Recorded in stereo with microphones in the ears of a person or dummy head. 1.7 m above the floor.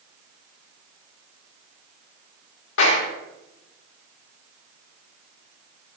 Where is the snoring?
No snoring in this recording.